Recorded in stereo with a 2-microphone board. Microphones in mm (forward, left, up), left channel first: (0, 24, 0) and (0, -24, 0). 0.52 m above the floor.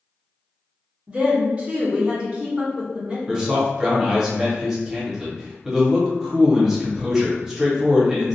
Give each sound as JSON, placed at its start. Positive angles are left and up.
{"t": 1.1, "sound": "a woman speaking", "side_deg": -25, "distance_m": 1.3}
{"t": 3.3, "sound": "a man speaking", "side_deg": -15, "distance_m": 0.9}